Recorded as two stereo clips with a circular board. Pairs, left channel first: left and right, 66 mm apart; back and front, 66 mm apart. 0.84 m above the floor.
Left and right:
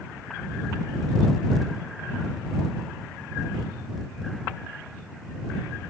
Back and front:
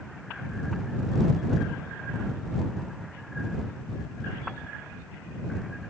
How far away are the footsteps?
No footsteps in this recording.